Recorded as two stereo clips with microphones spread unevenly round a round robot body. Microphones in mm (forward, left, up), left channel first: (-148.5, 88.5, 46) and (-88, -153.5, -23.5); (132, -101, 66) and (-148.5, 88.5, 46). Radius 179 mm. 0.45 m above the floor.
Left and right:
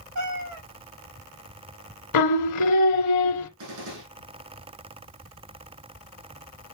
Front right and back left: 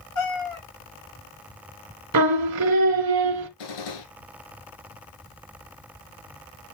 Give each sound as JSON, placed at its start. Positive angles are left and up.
{"t": 0.1, "sound": "a cat meowing", "azimuth_deg": -75, "distance_m": 6.0}
{"t": 2.1, "sound": "singing", "azimuth_deg": 105, "distance_m": 1.3}
{"t": 3.6, "sound": "a gunshot", "azimuth_deg": -45, "distance_m": 4.0}